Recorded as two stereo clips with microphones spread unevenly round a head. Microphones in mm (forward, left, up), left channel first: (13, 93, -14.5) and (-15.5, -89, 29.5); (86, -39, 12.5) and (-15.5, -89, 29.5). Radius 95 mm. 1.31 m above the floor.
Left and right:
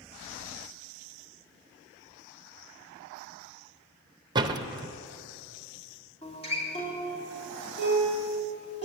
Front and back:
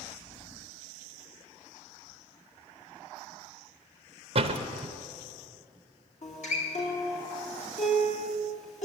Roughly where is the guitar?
Ahead.